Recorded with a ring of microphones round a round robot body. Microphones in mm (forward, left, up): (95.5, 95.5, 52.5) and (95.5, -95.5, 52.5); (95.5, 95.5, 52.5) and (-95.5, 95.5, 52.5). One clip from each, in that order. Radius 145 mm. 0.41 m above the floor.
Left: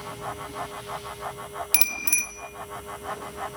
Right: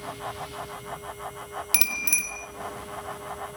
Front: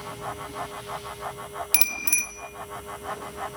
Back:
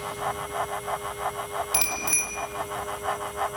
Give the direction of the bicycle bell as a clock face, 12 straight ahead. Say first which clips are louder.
Even, front 2 dB; 12 o'clock.